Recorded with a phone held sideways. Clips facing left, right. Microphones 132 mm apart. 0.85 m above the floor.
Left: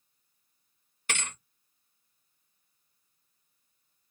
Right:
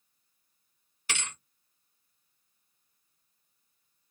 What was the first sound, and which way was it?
A thud, 50° left (ahead or behind).